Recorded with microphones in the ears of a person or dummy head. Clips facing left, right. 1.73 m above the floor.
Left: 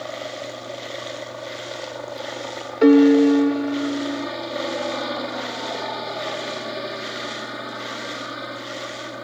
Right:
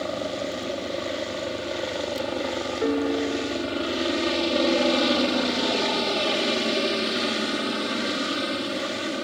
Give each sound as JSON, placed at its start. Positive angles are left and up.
{"t": 0.0, "sound": "a helicopter", "side_deg": -35}
{"t": 2.8, "sound": "a piano", "side_deg": 70}